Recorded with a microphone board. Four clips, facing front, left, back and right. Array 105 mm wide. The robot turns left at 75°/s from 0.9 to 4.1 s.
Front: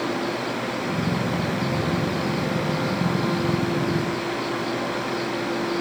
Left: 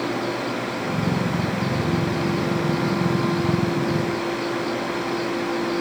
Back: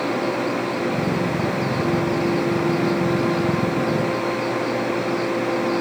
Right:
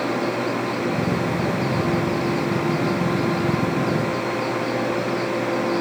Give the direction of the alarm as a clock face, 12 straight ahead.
No alarm in this recording.